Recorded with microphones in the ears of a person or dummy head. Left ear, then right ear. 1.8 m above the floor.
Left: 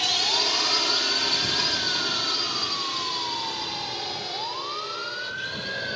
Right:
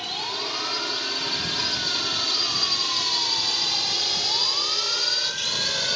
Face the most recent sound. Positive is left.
turn(degrees=-45)  # may be behind; listen again after turning